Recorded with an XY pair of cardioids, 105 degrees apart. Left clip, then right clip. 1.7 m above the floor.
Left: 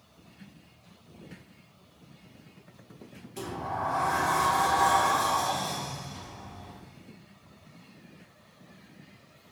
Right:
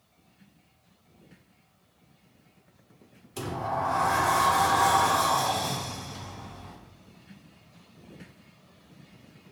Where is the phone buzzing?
I don't hear a phone buzzing.